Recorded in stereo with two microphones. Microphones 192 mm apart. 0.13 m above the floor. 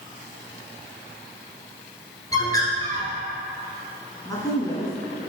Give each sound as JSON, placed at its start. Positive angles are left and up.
{"t": 2.3, "sound": "a bird", "side_deg": 20, "distance_m": 1.7}
{"t": 4.2, "sound": "a woman speaking", "side_deg": 20, "distance_m": 1.5}